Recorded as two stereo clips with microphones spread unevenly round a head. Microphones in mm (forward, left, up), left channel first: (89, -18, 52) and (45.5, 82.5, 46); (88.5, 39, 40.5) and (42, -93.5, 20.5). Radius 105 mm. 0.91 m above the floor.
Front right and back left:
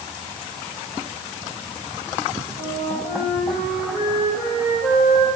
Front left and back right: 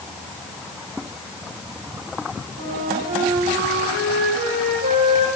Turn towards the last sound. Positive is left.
turn(degrees=-140)